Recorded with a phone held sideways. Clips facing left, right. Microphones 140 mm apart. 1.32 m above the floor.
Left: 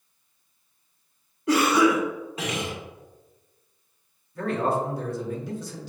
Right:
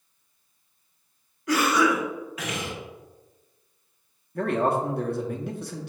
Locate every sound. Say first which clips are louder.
1.5 s a cough: left 3 dB; 25° left (ahead or behind), 1.3 m
4.3 s a man speaking: right 1 dB; 65° right (ahead or behind), 0.8 m